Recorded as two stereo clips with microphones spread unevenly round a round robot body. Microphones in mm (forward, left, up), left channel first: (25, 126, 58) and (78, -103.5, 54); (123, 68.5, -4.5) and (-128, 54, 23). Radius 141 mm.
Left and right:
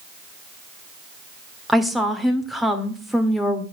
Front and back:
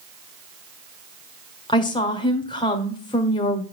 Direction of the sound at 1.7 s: 10° left.